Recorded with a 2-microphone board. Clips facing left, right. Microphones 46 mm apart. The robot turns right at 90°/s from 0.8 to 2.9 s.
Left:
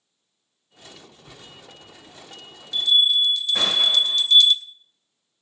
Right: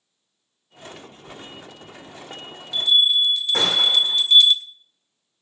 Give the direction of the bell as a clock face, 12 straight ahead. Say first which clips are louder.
Right 5 dB; 10 o'clock.